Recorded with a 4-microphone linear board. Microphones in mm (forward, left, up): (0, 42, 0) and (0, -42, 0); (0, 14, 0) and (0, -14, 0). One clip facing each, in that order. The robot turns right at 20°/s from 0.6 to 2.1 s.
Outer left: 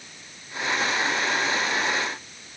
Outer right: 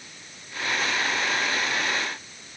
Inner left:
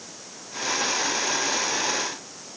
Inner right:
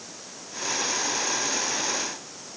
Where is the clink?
I don't hear a clink.